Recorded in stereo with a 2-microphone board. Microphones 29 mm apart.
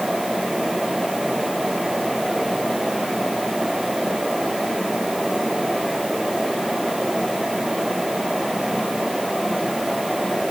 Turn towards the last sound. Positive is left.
No sound to turn to.